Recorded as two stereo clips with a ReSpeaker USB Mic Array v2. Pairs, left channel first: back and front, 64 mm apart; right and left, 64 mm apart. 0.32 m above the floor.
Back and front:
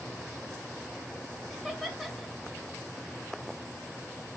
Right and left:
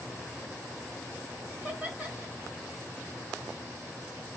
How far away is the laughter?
About 0.9 m.